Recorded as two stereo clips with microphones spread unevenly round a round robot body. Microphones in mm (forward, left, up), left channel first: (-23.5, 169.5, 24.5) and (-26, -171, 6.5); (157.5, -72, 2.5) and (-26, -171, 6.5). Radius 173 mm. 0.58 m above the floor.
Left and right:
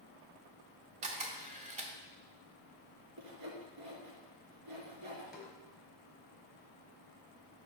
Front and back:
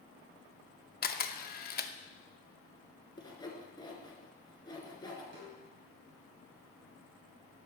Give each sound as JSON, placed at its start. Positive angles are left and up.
{"t": 1.0, "sound": "a camera shutter", "azimuth_deg": -20, "distance_m": 0.6}
{"t": 3.2, "sound": "sawing", "azimuth_deg": -45, "distance_m": 1.8}
{"t": 5.3, "sound": "a snare drum", "azimuth_deg": 180, "distance_m": 1.9}